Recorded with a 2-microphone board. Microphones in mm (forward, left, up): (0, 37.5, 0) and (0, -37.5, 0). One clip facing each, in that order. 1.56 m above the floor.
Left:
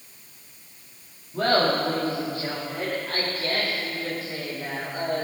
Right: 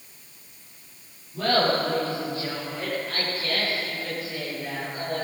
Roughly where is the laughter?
Left.